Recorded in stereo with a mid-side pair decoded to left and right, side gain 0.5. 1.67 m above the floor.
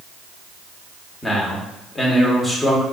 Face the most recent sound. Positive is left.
turn(degrees=20)